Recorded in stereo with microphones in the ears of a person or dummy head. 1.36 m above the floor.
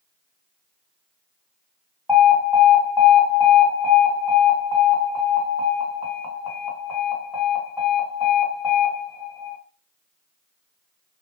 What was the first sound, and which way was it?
An alarm, centre (ahead or behind).